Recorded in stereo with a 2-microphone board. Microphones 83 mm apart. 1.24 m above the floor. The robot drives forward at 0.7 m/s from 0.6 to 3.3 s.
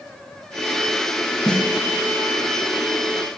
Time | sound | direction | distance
1.5 | a snare drum | 5° left (ahead or behind) | 1.7 m